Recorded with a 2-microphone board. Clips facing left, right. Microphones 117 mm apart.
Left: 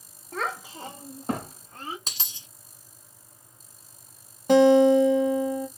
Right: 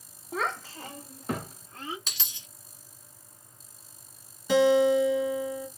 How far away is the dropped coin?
About 1.1 m.